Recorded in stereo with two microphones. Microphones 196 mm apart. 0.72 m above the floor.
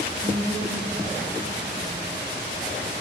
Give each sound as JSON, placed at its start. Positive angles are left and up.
{"t": 0.2, "sound": "a woman speaking", "side_deg": -55, "distance_m": 8.5}